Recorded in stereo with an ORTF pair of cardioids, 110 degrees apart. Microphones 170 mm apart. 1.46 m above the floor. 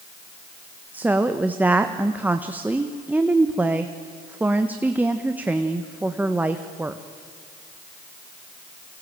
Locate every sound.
0.9 s a woman speaking: 10° right, 1.2 m